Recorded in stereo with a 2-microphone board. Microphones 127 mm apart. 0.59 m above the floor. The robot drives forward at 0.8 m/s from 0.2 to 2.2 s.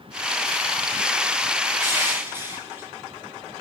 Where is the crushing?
20° right (ahead or behind), 2 m; by 2.9 s 15° right (ahead or behind), 2.5 m.